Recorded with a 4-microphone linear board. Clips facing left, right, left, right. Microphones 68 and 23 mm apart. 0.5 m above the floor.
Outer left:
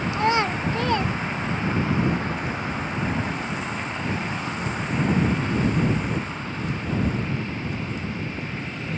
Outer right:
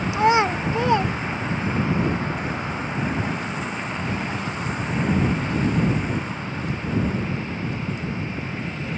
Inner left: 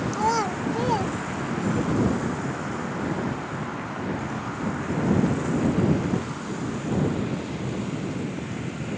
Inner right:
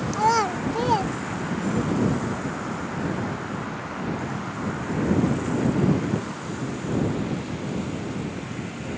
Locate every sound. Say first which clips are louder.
0.1 s a child speaking: outer right 4 dB, inner right 4 dB; 20° right (ahead or behind)